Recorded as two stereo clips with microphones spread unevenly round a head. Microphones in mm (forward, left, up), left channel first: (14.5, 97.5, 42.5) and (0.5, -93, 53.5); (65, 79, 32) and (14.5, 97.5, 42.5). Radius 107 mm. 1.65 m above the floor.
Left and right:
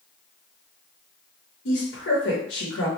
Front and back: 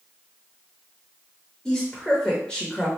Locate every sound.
1.6 s a woman speaking: 65° left, 0.8 m